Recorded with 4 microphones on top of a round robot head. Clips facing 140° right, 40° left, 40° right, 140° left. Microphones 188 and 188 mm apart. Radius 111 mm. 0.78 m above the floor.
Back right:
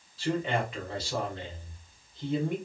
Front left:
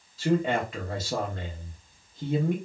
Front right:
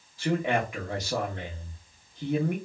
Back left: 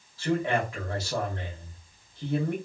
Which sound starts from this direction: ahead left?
A man speaking, at 0.2 s.